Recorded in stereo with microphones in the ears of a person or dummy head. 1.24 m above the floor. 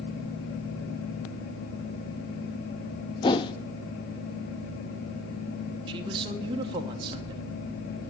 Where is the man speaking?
25° right (ahead or behind), 0.9 m.